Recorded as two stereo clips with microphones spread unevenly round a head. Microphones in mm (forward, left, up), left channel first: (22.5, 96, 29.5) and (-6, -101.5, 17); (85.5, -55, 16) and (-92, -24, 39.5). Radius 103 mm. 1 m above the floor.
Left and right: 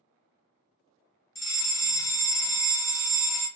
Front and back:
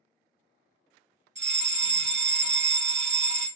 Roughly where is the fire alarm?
Behind left.